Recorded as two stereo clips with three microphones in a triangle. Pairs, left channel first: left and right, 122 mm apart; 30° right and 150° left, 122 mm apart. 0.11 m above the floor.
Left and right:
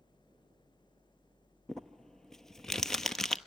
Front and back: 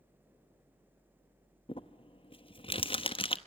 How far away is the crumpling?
About 0.8 m.